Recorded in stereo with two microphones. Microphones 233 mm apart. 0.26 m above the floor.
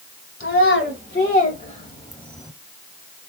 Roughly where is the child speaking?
Left.